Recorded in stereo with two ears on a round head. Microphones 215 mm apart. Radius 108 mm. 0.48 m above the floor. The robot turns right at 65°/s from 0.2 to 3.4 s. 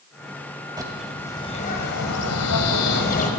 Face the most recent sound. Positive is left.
turn(degrees=150)